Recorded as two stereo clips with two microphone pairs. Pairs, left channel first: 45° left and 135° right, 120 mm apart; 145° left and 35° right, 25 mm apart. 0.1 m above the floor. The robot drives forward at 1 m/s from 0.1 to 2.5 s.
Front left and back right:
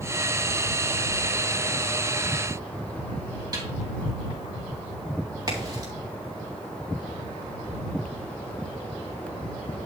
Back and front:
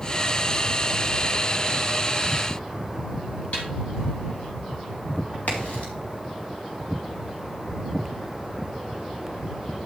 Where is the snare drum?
170° left, 3.5 m.